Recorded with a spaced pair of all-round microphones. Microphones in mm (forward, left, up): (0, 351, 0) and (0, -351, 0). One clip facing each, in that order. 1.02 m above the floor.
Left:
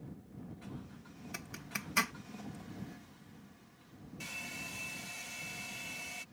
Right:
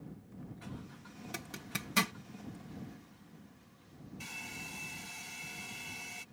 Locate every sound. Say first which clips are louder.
1.3 s a zipper: right 3 dB; 60° right (ahead or behind)
4.2 s a hair dryer: left 1 dB; 15° left (ahead or behind)